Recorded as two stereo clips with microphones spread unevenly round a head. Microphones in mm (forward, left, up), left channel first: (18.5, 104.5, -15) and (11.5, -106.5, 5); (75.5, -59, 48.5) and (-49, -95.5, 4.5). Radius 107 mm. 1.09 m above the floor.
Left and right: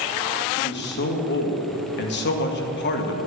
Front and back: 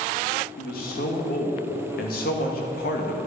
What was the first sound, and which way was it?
A man speaking, 55° left.